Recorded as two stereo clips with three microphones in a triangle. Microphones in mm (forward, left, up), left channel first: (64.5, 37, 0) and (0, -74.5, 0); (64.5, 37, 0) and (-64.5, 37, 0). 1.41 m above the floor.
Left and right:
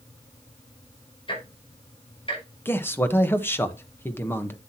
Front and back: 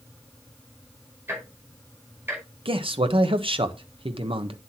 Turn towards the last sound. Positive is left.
turn(degrees=135)